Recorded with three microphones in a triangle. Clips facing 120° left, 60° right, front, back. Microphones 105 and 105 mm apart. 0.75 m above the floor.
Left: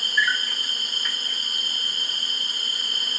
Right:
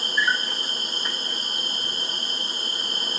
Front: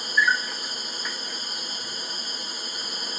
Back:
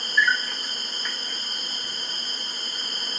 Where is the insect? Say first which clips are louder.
Right 1 dB, even; 75° right, 0.8 m.